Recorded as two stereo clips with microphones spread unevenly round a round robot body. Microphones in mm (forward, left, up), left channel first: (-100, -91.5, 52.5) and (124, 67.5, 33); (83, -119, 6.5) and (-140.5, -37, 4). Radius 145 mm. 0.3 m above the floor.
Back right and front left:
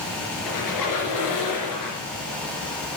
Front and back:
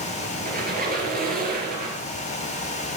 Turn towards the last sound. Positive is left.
turn(degrees=-150)